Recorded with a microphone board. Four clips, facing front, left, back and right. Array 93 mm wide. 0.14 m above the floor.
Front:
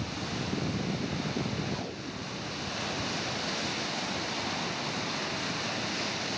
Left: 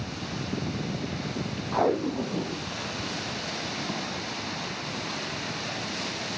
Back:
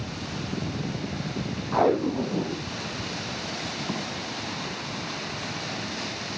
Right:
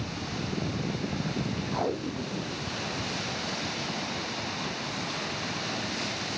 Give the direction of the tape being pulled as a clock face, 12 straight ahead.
7 o'clock.